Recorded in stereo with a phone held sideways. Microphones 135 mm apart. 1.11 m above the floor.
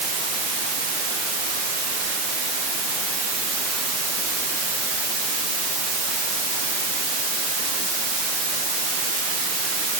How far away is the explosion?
No explosion in this recording.